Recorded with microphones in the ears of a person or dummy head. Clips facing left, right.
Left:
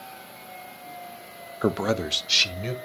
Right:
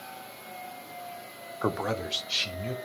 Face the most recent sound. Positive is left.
turn(degrees=75)  # may be behind; listen again after turning